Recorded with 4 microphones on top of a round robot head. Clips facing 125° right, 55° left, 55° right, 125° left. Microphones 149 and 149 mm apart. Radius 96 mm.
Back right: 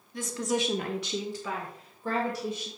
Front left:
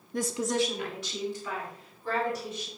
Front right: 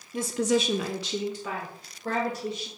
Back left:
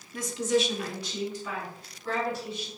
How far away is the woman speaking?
About 0.6 m.